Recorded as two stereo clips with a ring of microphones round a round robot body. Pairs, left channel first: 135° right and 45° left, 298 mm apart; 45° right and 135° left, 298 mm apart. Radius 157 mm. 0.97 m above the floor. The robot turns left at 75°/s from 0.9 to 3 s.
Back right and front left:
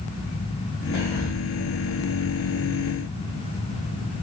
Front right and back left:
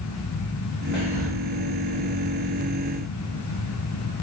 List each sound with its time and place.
0.9 s whispering: 135° right, 3 m; by 1.3 s 160° right, 3 m